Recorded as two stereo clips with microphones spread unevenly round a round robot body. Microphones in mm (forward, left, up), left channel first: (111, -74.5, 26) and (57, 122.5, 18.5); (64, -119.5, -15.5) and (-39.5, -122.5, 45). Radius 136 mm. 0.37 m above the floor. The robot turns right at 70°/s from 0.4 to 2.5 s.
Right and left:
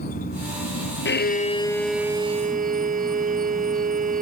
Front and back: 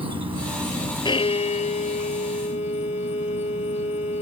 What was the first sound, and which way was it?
An insect, 135° right.